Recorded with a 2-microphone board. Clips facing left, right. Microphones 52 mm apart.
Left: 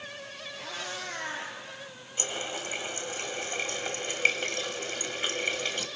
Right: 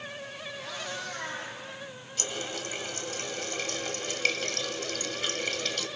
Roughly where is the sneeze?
I don't hear a sneeze.